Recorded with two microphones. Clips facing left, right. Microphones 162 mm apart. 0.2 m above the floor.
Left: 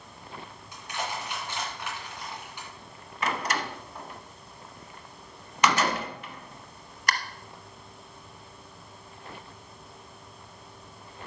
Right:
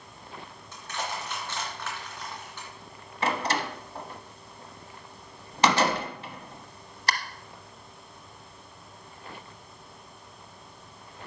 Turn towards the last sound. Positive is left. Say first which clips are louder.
# right 2 dB
turn(degrees=-30)  # may be behind; listen again after turning